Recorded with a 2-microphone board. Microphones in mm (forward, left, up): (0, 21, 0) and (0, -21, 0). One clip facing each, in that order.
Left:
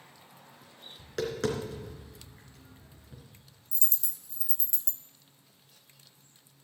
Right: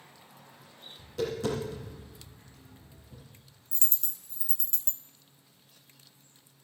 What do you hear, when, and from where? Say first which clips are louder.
1.0 s tapping: even; 75° left (ahead or behind), 2.5 m
3.7 s a dropped coin: right 2 dB; 55° right (ahead or behind), 1.0 m